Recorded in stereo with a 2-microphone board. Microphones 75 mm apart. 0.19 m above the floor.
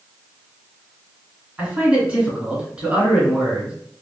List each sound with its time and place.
1.6 s a man speaking: 15° right (ahead or behind), 1.6 m